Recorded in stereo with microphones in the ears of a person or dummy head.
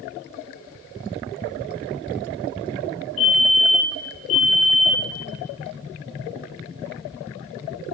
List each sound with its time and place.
3.2 s a fire alarm: 35° left (ahead or behind), 5.5 m